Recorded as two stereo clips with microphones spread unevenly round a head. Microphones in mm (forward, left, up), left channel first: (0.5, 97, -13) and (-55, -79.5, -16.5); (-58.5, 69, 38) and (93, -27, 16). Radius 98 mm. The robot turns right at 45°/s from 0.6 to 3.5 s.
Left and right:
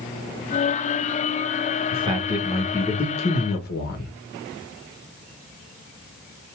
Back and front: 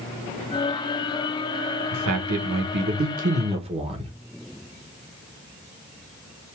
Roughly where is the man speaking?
Ahead right.